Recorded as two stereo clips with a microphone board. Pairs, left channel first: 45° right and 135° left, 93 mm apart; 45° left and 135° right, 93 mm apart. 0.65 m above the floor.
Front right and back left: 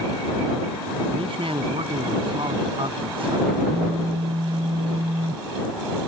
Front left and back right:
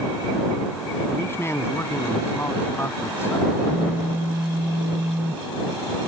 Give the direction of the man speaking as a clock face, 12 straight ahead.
8 o'clock.